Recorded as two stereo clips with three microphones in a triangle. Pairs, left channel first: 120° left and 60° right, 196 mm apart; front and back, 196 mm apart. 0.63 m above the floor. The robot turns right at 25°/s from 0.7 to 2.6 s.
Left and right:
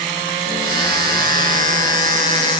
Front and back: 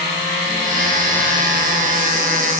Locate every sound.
Only background noise.